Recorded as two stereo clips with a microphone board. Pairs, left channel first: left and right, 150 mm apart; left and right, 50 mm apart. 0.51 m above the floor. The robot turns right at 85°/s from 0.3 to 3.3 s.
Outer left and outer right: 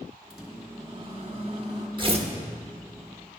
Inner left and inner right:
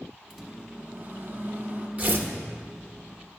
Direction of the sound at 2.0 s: 30° right (ahead or behind).